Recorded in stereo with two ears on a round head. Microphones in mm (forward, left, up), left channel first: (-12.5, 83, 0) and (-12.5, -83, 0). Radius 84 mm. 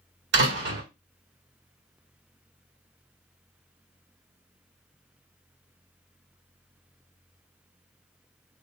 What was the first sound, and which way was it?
A door slam, 65° right (ahead or behind).